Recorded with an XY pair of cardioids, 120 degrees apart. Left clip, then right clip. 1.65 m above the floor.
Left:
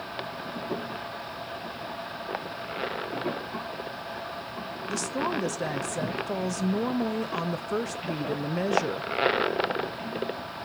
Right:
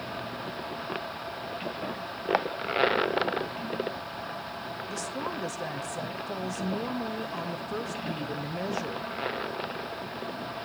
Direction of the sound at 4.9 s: 30° left.